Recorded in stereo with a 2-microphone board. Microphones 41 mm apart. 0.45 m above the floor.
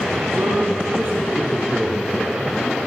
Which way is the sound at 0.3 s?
75° right (ahead or behind).